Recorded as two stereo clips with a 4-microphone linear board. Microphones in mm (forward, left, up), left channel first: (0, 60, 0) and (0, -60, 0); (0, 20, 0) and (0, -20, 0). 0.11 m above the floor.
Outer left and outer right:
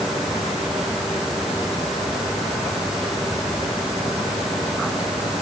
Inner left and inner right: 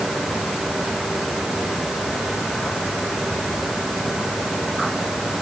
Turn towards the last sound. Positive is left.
No sound to turn to.